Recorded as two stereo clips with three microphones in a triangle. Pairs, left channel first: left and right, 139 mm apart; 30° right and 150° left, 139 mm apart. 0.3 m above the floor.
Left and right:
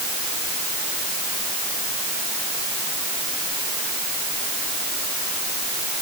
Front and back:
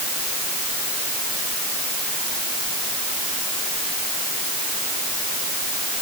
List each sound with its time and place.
Only background noise.